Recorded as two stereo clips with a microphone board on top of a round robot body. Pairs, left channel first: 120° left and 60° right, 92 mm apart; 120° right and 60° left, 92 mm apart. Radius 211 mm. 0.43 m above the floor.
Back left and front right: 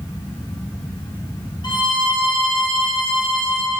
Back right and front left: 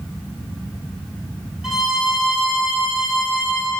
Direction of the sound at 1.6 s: 145° left.